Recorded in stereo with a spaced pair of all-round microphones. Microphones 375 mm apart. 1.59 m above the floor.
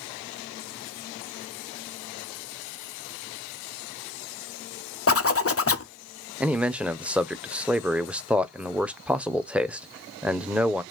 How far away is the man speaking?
About 0.6 m.